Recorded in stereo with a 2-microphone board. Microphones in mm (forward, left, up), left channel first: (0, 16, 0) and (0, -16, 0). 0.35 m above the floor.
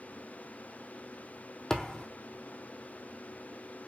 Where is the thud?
20° left (ahead or behind), 1.7 m.